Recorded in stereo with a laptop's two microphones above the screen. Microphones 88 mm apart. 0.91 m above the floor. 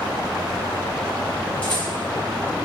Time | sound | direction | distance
1.6 | a rattle | 15° left (ahead or behind) | 1.5 m